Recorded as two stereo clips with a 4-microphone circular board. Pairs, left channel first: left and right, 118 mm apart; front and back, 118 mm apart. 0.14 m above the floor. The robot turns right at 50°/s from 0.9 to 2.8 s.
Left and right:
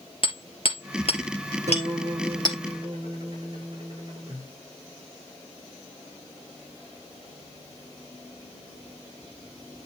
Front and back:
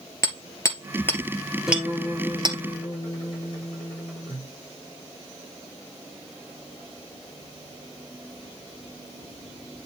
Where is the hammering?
60° left, 2.5 m; by 2.6 s 145° left, 2.5 m.